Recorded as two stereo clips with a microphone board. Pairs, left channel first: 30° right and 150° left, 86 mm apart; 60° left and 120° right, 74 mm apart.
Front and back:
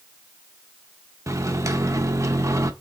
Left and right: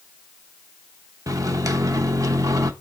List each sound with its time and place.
1.3 s a microwave: 160° right, 0.7 m